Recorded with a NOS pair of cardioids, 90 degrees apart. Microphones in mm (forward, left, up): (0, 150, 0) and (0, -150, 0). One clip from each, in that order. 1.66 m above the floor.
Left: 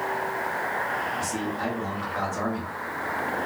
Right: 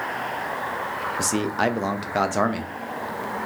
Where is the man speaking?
65° right, 0.6 m.